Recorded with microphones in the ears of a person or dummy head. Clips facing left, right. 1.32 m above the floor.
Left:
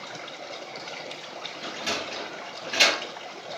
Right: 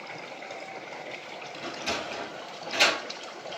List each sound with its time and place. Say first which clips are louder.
1.6 s a sliding door: even; 10° left (ahead or behind), 1.5 m